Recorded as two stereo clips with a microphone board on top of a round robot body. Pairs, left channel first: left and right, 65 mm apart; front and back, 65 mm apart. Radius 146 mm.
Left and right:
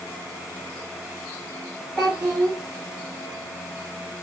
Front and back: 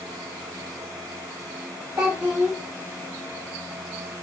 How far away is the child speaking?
About 2 m.